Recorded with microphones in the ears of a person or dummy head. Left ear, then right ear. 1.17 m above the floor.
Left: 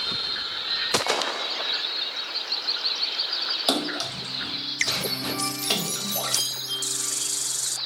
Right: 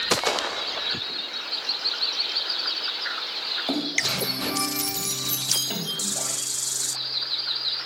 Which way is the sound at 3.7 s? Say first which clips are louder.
Right 1 dB; 45° left (ahead or behind).